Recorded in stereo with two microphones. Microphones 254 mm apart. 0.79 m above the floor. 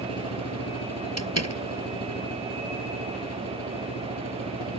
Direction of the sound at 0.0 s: 75° left (ahead or behind).